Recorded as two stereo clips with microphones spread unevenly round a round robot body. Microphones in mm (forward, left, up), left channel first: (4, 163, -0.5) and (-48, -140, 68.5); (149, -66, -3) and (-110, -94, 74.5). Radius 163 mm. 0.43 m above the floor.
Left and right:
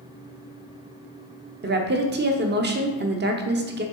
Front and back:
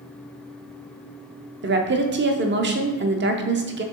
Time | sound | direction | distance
1.6 | a woman speaking | 145° right | 0.8 m